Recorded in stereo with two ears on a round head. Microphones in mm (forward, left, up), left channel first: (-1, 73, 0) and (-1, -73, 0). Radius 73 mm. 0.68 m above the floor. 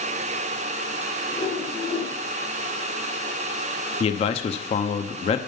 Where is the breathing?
I don't hear breathing.